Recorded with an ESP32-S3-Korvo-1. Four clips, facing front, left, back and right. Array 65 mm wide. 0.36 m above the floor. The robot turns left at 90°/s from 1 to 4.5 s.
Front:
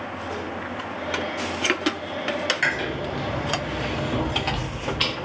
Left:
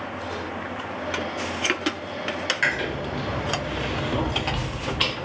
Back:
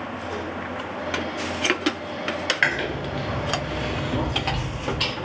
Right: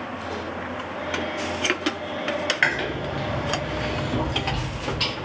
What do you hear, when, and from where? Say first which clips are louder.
2.6 s chewing: even, back 1 dB; 140° right, 1.1 m; by 5.1 s 50° left, 1.1 m